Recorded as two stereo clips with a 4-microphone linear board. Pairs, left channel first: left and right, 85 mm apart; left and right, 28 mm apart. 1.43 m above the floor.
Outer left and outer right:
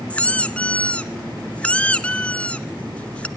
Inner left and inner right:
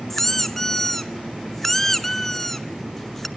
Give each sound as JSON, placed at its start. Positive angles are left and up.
{"t": 0.1, "sound": "a squeak", "side_deg": 15, "distance_m": 0.9}